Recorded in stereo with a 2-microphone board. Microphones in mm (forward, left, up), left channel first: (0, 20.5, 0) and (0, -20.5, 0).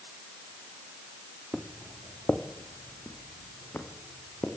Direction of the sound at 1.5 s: 5° right (ahead or behind).